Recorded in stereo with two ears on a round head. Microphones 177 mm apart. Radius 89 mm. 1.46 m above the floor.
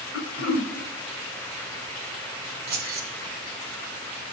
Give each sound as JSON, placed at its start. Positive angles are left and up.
{"t": 0.1, "sound": "throat clearing", "side_deg": 80, "distance_m": 1.1}
{"t": 2.7, "sound": "keys jangling", "side_deg": -50, "distance_m": 1.2}